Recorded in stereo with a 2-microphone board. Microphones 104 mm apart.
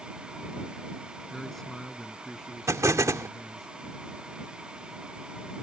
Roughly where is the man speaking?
Centre.